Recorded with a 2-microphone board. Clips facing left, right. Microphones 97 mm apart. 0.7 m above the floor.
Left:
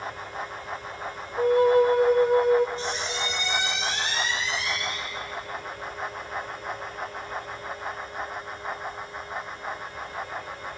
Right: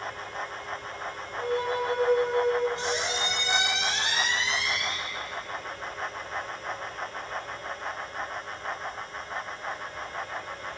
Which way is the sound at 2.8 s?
85° right.